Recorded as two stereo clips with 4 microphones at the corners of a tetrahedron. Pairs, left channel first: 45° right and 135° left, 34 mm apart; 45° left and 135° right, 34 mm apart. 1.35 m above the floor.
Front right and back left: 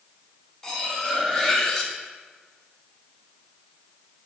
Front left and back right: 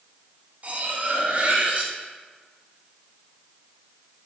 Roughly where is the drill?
I don't hear a drill.